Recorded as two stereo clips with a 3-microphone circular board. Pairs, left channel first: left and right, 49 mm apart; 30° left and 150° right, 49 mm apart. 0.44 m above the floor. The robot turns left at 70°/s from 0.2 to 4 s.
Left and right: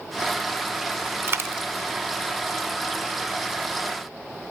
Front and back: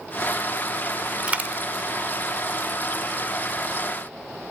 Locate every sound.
1.3 s a dropped coin: 90° right, 0.5 m; by 1.7 s 115° right, 0.5 m